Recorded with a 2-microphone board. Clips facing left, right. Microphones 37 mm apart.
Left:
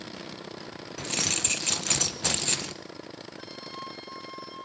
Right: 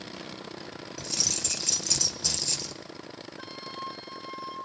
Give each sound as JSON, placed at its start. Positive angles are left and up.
{"t": 1.0, "sound": "keys jangling", "side_deg": 50, "distance_m": 0.7}
{"t": 3.4, "sound": "a flute", "side_deg": -15, "distance_m": 5.5}